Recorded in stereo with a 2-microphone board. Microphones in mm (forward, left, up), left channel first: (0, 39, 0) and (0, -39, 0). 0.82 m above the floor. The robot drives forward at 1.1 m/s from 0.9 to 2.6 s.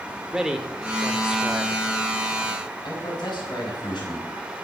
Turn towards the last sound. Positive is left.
turn(degrees=75)  # may be behind; listen again after turning